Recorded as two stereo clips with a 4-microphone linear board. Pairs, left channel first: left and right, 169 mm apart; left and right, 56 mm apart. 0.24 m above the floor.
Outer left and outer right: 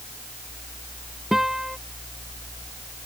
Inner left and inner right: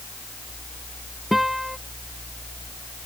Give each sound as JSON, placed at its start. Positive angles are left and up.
{"t": 1.3, "sound": "a guitar", "side_deg": 0}